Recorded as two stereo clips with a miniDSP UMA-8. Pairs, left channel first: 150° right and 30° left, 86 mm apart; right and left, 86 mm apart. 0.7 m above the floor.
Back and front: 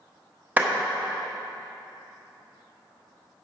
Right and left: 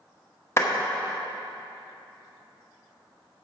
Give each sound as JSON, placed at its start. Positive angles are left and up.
{"t": 0.6, "sound": "a clap", "azimuth_deg": -35, "distance_m": 1.2}